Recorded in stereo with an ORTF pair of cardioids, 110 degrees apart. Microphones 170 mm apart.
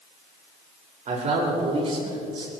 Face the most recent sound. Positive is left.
turn(degrees=-30)